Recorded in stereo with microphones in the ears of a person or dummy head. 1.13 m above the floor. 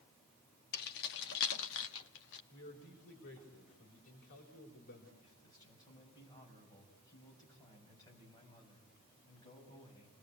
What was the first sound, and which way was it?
Keys jangling, 60° left (ahead or behind).